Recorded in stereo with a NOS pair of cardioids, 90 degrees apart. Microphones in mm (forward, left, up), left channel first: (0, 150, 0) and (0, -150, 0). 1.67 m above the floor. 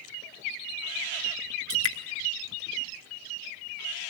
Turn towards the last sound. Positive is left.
turn(degrees=50)